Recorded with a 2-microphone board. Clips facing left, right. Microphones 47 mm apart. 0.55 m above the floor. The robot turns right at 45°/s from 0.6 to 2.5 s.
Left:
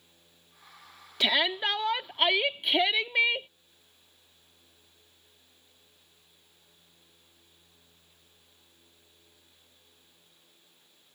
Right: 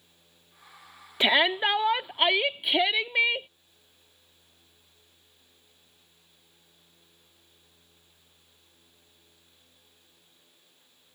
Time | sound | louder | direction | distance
1.2 | a shout | right 4 dB | 25° right (ahead or behind) | ?